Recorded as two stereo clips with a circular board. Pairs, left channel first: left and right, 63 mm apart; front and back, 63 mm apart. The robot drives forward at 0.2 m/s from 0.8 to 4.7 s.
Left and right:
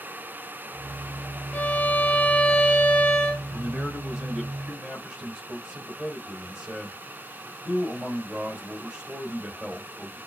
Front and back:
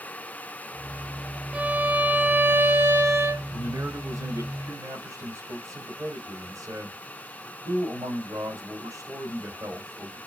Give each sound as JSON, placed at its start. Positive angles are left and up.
{"t": 1.5, "sound": "a violin", "azimuth_deg": 135, "distance_m": 0.7}
{"t": 3.5, "sound": "a man speaking", "azimuth_deg": -170, "distance_m": 2.5}